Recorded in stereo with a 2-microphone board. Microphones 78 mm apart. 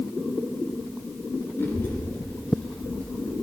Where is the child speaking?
30° left (ahead or behind), 2.5 m; by 3.3 s 10° left (ahead or behind), 3.5 m.